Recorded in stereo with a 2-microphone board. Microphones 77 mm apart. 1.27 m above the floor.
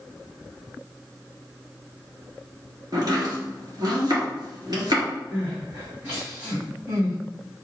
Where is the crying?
20° right (ahead or behind), 2 m.